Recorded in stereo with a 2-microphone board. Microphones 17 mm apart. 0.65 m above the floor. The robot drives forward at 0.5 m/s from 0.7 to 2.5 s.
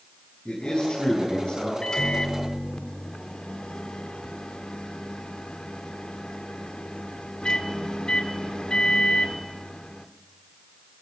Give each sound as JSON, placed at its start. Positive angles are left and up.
{"t": 0.5, "sound": "a man speaking", "side_deg": 65, "distance_m": 6.5}
{"t": 1.8, "sound": "a microwave", "side_deg": 45, "distance_m": 1.5}